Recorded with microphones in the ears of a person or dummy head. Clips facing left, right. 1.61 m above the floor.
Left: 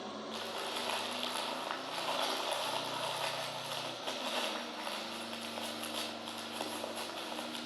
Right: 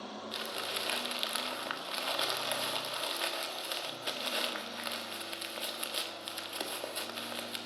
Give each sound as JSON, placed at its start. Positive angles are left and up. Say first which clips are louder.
{"t": 0.3, "sound": "crumpling", "louder": "even", "side_deg": -25, "distance_m": 1.5}